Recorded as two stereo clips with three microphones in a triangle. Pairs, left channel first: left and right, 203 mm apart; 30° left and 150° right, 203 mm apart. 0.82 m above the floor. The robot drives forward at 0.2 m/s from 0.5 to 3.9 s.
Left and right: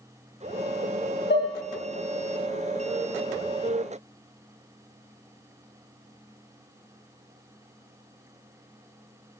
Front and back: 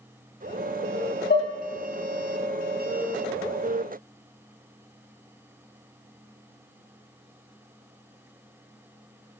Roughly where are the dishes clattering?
Ahead left.